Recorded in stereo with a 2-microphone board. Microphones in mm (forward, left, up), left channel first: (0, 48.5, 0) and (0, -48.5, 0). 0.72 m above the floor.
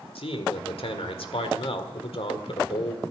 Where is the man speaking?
75° left (ahead or behind), 1.7 m.